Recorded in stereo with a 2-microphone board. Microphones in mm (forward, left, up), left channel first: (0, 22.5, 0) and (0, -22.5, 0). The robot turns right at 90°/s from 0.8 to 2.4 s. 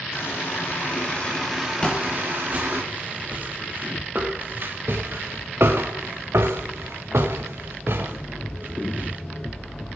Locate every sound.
0.1 s a running tap: 110° left, 4.5 m; by 2.8 s 110° right, 4.5 m
1.8 s footsteps: 25° left (ahead or behind), 3 m; by 9.2 s 45° right (ahead or behind), 1.9 m